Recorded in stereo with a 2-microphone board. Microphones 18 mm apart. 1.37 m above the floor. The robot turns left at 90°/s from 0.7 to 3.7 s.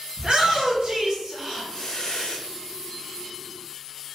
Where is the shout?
60° right (ahead or behind), 2.0 m; by 2.4 s 80° left, 2.0 m.